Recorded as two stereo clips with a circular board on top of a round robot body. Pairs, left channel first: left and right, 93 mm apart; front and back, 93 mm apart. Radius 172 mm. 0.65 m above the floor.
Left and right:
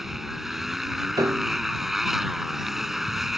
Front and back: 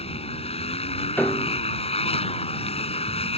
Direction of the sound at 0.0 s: 5° right.